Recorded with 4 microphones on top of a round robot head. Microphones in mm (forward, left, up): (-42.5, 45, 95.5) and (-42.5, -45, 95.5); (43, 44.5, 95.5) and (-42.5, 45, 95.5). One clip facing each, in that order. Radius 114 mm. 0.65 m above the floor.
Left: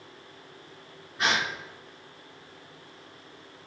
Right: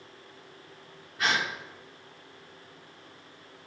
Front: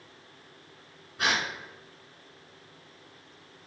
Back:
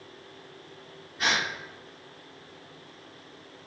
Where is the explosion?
No explosion in this recording.